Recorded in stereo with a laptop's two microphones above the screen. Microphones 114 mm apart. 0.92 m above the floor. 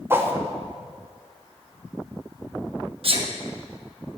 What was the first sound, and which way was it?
A whoosh, 20° right (ahead or behind).